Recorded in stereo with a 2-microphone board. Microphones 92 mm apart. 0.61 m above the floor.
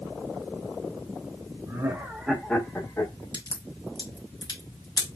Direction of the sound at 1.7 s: 35° right (ahead or behind).